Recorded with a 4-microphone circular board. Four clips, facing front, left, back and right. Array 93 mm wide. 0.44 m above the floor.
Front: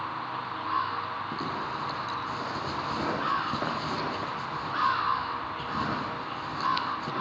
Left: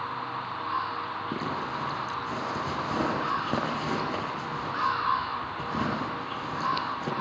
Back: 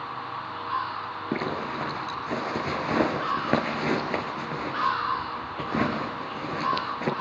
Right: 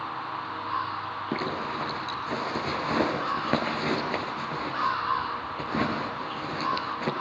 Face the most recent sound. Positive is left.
turn(degrees=-160)